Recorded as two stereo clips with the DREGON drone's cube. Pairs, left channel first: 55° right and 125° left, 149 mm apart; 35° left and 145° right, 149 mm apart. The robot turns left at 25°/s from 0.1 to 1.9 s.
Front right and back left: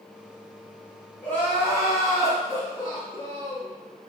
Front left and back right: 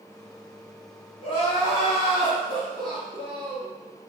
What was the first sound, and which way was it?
Crying, 15° left.